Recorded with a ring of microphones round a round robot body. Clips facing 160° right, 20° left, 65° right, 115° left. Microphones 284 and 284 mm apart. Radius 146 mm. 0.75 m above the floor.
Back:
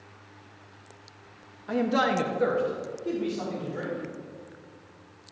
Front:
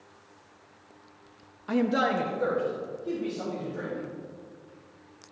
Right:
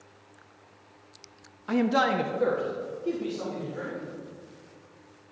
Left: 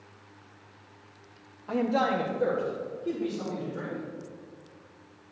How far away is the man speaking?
About 0.8 m.